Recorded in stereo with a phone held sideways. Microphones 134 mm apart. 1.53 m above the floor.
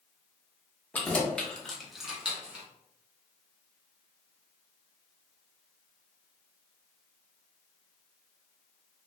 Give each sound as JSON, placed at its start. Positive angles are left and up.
{"t": 0.9, "sound": "keys jangling", "side_deg": 10, "distance_m": 0.7}